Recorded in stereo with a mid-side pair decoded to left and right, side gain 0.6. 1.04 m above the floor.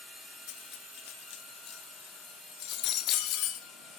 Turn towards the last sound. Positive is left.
turn(degrees=65)